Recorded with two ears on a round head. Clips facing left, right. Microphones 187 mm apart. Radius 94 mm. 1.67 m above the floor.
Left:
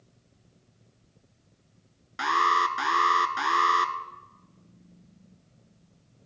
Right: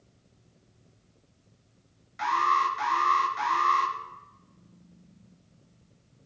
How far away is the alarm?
About 1.4 m.